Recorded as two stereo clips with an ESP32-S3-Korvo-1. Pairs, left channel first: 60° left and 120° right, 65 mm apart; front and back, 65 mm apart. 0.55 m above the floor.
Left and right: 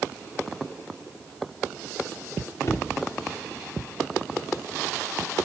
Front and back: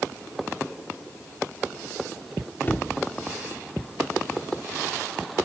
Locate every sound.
2.6 s a cupboard door: 50° left, 0.9 m